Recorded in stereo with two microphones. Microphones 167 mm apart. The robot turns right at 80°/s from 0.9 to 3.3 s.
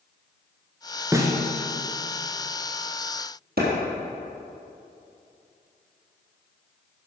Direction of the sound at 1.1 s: 15° right (ahead or behind).